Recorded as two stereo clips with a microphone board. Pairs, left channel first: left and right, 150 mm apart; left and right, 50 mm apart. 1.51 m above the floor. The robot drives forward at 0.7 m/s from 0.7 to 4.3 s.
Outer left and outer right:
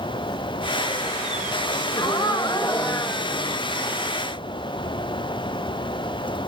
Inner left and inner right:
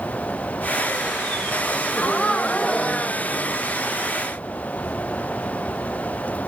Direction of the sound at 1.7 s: 30° left (ahead or behind).